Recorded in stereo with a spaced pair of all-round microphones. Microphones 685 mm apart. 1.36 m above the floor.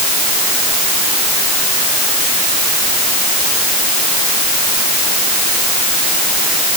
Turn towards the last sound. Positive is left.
No sound to turn to.